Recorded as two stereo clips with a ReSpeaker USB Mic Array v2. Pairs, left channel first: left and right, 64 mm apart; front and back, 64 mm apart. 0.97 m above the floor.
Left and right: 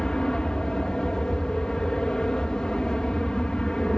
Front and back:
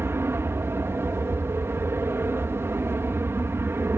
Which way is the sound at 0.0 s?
160° left.